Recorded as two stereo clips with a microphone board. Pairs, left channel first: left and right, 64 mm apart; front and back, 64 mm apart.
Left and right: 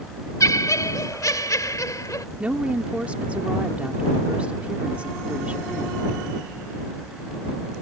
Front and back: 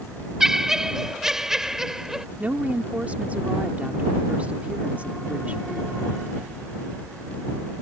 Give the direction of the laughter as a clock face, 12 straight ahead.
9 o'clock.